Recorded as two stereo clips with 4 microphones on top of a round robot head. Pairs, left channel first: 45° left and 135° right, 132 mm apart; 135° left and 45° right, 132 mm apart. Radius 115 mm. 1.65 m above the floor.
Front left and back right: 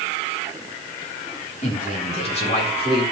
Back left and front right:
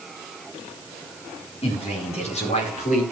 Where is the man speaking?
85° left, 4 m; by 3.0 s 95° left, 5 m.